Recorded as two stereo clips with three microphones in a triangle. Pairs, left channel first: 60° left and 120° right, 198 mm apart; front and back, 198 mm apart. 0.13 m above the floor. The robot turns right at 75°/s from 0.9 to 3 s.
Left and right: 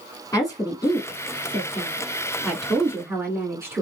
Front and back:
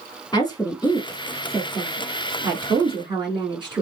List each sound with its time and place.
0.3 s a woman speaking: 25° left, 1.3 m; by 3.8 s 175° right, 1.3 m